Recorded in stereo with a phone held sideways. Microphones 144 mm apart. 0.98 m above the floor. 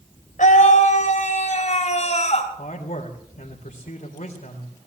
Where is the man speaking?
75° left (ahead or behind), 3.5 m.